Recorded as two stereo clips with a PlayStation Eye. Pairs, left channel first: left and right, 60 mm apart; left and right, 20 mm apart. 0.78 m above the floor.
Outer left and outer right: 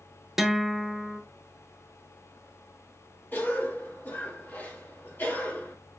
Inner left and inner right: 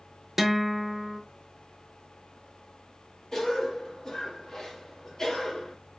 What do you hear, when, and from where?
0.4 s a guitar: 5° right (ahead or behind), 0.7 m
3.3 s a cough: 35° left (ahead or behind), 1.5 m